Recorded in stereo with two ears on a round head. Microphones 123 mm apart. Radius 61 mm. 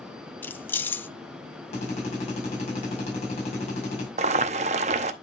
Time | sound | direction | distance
0.4 | keys jangling | 15° left (ahead or behind) | 0.5 m
1.7 | a drill | 50° left (ahead or behind) | 6 m
4.2 | boiling | 50° right (ahead or behind) | 0.8 m